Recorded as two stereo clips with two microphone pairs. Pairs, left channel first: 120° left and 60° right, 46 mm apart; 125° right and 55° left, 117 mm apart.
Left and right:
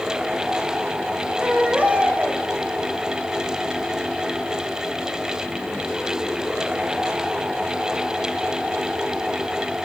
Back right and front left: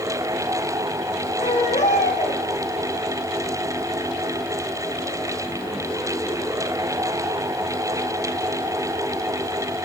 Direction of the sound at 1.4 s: 120° right.